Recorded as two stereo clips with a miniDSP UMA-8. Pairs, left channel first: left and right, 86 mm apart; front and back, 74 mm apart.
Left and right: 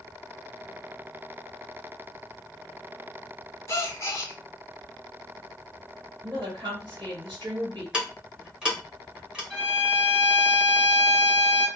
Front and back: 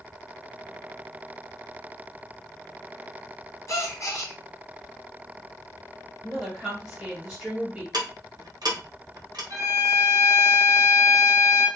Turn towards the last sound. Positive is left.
turn(degrees=-175)